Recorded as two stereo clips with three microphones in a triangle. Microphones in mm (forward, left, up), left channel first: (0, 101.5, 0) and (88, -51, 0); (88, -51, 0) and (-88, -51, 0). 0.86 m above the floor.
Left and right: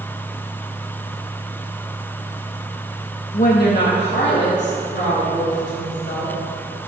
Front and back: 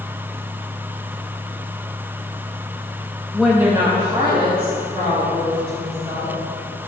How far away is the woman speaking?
About 0.7 m.